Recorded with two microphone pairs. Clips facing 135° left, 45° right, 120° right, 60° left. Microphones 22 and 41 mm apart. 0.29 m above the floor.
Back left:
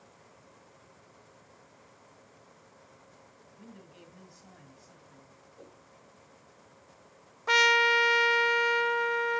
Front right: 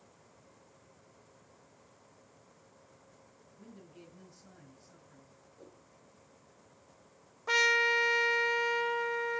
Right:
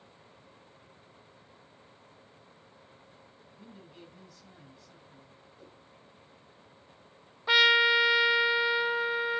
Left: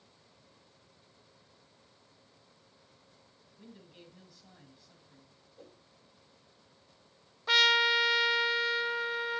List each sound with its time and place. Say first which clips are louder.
3.6 s a man speaking: back left 1 dB, right 2 dB; 145° left, 8.5 m
5.6 s a whoosh: back left 2 dB, left 2 dB; 110° left, 7.5 m
7.5 s a trumpet: back left 4 dB, right 3 dB; 175° left, 0.5 m